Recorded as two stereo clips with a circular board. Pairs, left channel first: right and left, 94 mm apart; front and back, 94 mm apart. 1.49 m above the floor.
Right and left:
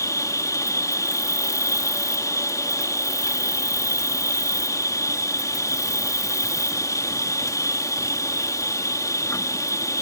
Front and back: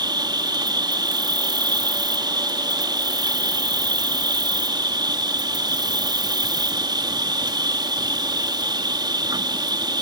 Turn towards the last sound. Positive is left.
turn(degrees=-145)